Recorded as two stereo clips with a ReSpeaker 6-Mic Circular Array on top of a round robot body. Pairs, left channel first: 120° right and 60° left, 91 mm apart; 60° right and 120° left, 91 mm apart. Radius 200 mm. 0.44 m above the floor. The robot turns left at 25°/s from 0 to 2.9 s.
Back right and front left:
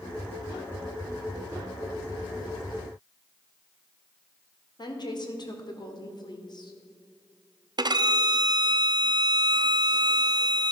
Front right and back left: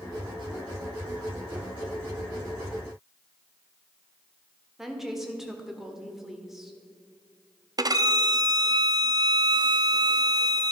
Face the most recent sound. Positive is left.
turn(degrees=85)